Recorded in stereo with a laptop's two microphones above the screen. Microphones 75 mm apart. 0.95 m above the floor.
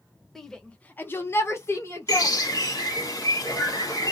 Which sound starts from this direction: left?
A bird, at 2.1 s.